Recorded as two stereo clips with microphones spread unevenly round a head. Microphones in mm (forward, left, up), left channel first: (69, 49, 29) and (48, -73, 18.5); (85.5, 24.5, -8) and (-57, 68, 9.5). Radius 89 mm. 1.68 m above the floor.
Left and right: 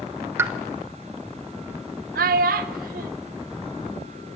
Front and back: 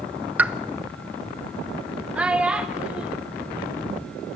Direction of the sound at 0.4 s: 160° right.